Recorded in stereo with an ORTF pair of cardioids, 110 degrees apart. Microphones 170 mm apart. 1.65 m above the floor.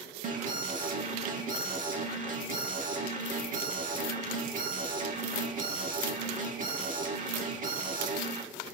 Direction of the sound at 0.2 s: 45° right.